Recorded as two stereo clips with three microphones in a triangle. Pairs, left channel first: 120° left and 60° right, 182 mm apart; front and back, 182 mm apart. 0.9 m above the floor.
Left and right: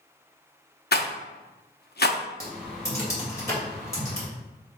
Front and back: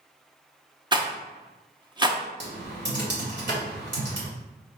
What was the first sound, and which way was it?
A rattle, 120° left.